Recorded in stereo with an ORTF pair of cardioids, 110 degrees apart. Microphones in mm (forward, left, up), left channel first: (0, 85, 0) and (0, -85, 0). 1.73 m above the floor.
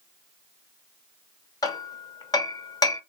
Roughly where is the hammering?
Ahead.